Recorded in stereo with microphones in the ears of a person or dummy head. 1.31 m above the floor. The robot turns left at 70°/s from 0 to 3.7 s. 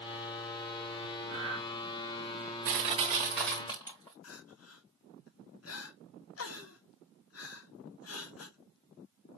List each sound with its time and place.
1.3 s breathing: 35° right (ahead or behind), 2.5 m; by 1.6 s 10° right (ahead or behind), 2.5 m
2.6 s crushing: 130° right, 1.3 m; by 4.1 s 155° left, 1.3 m
4.2 s crying: 75° left (ahead or behind), 1.0 m